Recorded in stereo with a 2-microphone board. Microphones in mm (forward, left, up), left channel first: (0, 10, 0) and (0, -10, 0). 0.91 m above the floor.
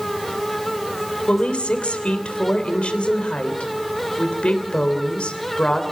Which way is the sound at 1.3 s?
70° left (ahead or behind).